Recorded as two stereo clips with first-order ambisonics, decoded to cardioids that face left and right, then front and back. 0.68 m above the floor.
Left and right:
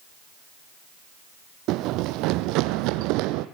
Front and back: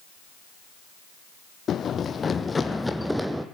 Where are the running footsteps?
60° right, 1.5 m; by 3.5 s 100° right, 1.5 m.